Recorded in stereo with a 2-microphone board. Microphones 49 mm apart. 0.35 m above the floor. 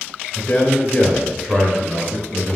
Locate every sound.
0.3 s a man speaking: 15° left (ahead or behind), 1.0 m; by 2.6 s 25° right (ahead or behind), 1.5 m